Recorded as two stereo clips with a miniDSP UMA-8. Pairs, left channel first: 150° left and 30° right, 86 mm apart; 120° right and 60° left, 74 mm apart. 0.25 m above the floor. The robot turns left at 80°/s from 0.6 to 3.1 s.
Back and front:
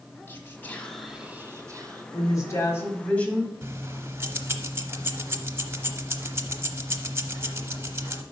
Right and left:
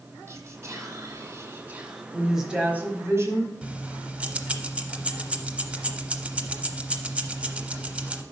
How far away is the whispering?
About 1.3 m.